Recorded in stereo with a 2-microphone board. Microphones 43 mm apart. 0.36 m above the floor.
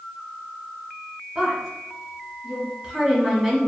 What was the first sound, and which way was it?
A woman speaking, 15° right (ahead or behind).